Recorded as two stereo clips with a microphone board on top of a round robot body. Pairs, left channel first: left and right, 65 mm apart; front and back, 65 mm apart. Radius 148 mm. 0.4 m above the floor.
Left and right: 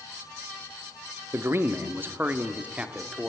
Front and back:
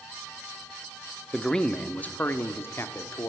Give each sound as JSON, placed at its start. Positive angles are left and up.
{"t": 1.3, "sound": "a man speaking", "azimuth_deg": -80, "distance_m": 1.3}